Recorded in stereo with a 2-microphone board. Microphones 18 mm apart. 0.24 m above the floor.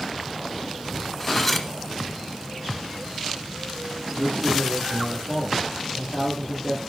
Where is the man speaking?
60° left (ahead or behind), 9.5 m.